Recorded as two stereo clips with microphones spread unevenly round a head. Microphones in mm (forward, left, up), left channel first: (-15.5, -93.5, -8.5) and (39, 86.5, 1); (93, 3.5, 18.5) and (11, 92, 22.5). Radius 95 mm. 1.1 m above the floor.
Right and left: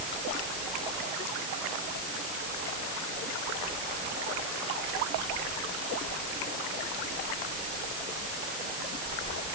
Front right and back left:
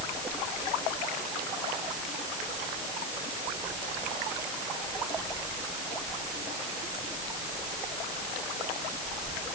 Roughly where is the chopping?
No chopping in this recording.